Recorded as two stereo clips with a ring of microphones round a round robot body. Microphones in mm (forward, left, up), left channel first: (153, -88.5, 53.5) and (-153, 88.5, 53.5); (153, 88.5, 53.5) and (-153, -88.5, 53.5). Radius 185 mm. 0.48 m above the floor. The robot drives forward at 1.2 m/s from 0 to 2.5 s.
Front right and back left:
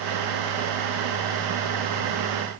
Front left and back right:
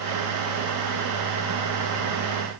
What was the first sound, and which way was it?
Only background noise.